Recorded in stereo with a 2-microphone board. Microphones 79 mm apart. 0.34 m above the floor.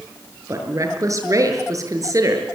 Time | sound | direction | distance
0.5 | a woman speaking | 45° right (ahead or behind) | 6.5 m